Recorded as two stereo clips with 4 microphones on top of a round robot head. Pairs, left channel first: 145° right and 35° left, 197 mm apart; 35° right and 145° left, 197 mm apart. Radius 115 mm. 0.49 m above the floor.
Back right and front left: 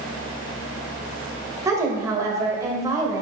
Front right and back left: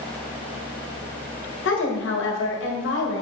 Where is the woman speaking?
35° right, 1.9 m.